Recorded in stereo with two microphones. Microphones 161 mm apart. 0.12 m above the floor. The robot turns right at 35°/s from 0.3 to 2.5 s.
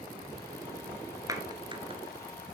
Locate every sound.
1.3 s a clap: 20° right (ahead or behind), 1.8 m; by 2.0 s 35° right (ahead or behind), 1.8 m